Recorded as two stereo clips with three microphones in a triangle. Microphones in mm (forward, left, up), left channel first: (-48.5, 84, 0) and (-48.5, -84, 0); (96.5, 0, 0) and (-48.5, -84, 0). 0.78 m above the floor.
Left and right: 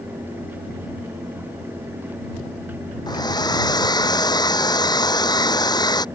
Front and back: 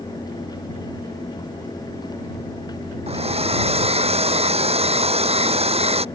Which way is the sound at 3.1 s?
155° left.